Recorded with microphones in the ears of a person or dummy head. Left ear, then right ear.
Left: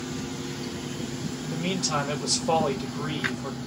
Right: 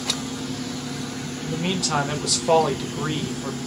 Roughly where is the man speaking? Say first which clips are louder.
Right 4 dB; centre.